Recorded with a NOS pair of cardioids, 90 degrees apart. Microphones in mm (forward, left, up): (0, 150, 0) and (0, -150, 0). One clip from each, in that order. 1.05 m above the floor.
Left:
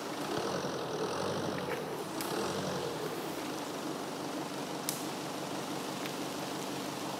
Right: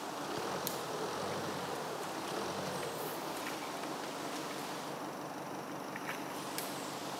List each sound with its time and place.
0.0 s an engine running: 40° left